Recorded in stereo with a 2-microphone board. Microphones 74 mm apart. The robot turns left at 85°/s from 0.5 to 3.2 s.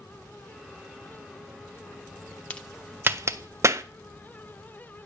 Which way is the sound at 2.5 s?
20° left (ahead or behind).